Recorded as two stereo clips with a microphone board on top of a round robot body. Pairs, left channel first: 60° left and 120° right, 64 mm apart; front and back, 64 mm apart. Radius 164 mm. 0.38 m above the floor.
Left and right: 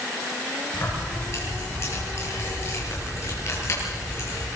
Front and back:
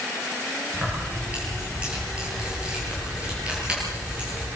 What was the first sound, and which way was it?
Keys jangling, 105° left.